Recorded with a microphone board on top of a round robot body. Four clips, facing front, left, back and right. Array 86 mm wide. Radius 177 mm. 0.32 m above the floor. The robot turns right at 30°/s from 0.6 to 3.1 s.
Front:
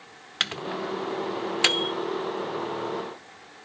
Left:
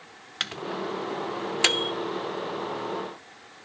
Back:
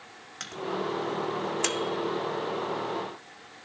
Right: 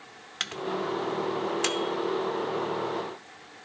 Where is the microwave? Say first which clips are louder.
Right 1 dB, even; 10° left, 0.9 m; by 1.9 s 50° left, 0.9 m.